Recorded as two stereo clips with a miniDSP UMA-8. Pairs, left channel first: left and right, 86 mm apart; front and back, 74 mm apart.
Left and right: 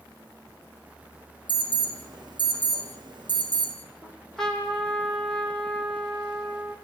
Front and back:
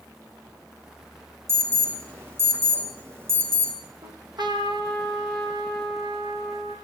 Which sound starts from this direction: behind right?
An alarm, at 1.5 s.